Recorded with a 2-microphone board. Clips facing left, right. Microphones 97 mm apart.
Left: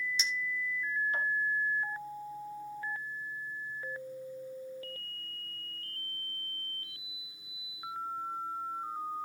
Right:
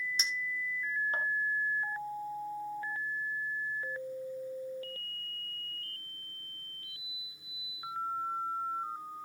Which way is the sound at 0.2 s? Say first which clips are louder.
Left 1 dB; 40° right (ahead or behind).